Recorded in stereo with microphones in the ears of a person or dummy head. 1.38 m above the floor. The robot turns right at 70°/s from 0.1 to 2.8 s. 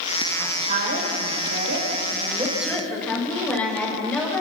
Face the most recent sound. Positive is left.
turn(degrees=10)